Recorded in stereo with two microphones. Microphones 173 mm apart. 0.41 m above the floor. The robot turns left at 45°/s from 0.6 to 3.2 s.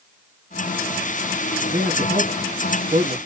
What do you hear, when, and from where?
1.7 s a man speaking: 45° right (ahead or behind), 3.5 m; by 3.2 s 60° right (ahead or behind), 3.5 m